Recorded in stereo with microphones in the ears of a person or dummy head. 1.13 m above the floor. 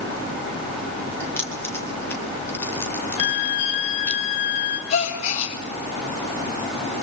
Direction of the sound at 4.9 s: 45° left (ahead or behind).